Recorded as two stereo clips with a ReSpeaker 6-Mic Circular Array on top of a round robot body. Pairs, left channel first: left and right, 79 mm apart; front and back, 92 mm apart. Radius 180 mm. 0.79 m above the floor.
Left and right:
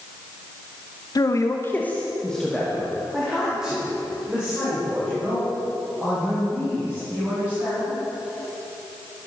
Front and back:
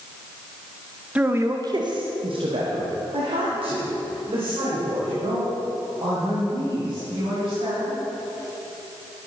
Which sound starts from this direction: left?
A man speaking, at 1.1 s.